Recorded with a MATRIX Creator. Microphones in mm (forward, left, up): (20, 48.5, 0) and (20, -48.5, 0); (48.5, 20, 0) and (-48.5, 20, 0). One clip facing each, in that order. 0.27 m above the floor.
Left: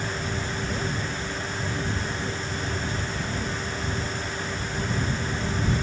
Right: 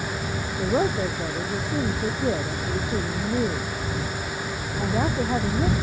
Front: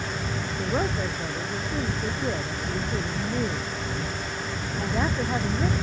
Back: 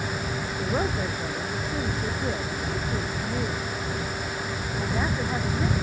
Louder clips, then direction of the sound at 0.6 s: Right 7 dB, even; 90° right.